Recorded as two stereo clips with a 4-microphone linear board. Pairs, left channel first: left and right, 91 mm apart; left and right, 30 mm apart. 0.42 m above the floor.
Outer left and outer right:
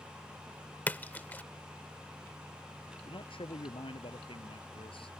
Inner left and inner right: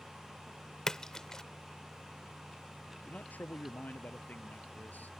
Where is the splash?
20° left (ahead or behind).